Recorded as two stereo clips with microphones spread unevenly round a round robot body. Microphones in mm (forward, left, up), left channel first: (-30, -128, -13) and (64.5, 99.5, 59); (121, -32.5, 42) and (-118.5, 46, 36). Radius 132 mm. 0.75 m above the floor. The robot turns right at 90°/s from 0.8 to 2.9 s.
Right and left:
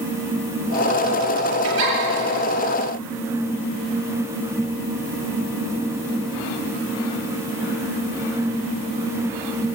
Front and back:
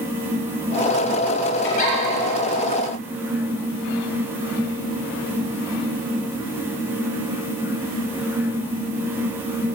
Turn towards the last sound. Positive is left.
turn(degrees=140)